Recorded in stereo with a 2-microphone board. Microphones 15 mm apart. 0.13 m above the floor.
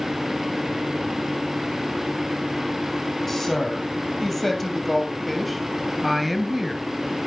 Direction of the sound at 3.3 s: 25° left (ahead or behind).